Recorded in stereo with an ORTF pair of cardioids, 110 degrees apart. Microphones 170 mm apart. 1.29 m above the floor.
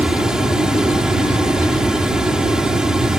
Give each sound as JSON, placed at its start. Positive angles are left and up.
{"t": 0.0, "sound": "a fan", "azimuth_deg": -5}